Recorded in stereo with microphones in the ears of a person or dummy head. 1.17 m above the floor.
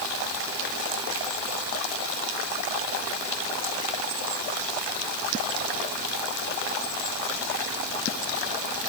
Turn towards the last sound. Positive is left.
No sound to turn to.